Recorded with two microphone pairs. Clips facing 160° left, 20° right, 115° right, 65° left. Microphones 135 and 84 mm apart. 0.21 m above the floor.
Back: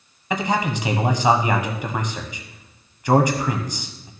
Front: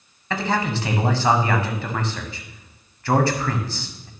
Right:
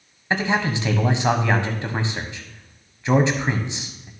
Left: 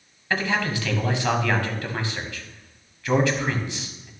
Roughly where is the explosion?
I don't hear an explosion.